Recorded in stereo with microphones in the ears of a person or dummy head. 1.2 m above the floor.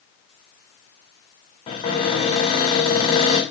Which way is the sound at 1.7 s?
35° left (ahead or behind).